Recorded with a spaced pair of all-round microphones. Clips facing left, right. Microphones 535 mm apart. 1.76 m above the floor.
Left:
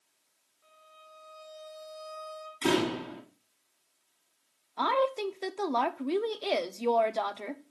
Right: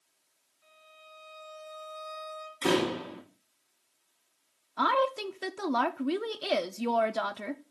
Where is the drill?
I don't hear a drill.